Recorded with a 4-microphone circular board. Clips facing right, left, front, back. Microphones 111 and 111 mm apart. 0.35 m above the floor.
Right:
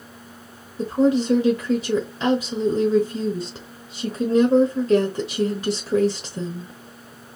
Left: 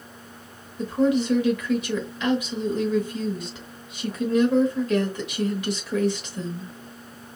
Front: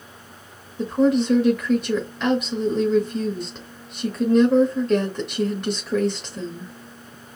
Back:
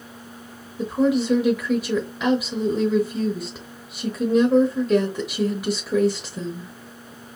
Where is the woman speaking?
100° right, 1.0 m.